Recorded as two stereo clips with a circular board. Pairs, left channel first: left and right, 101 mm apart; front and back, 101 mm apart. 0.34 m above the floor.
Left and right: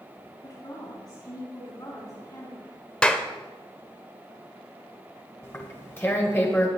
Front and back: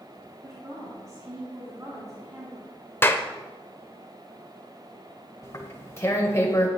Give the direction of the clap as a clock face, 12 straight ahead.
11 o'clock.